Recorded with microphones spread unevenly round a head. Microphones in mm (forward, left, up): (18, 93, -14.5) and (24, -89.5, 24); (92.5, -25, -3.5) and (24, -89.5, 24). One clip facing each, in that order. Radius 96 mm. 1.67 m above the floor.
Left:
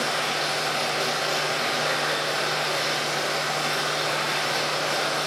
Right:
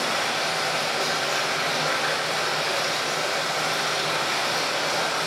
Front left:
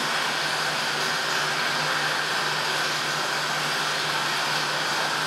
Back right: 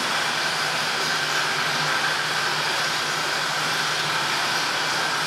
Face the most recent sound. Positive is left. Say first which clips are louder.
# even, back right 1 dB
turn(degrees=-175)